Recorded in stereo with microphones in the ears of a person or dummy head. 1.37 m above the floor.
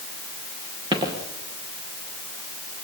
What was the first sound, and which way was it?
Footsteps, 30° right (ahead or behind).